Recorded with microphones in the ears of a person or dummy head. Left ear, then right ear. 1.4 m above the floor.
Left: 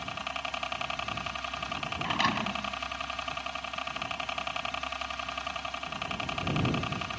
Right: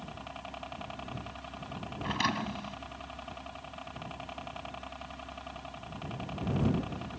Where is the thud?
10° left (ahead or behind).